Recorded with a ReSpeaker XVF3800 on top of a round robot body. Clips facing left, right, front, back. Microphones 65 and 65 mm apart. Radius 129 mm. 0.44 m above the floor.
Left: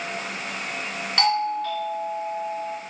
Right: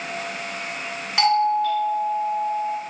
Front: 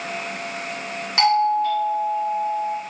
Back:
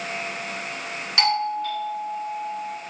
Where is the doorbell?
10° right, 1.9 m.